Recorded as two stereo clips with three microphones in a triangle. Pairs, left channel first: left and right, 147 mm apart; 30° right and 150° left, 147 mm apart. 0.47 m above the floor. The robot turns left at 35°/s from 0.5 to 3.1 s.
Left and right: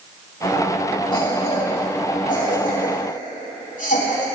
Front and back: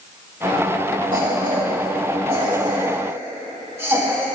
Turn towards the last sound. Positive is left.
turn(degrees=80)